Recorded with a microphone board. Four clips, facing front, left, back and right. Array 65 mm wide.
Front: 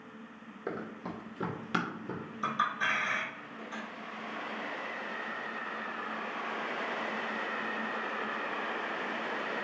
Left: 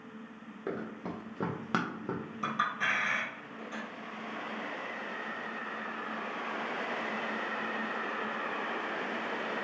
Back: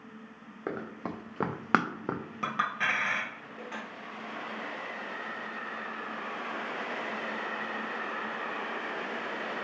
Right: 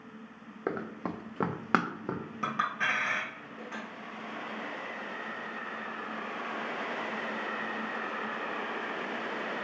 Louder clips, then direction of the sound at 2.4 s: Right 1 dB, back 1 dB; 160° right.